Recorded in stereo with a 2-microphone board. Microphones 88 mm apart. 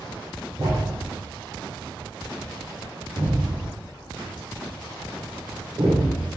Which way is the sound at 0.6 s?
60° right (ahead or behind).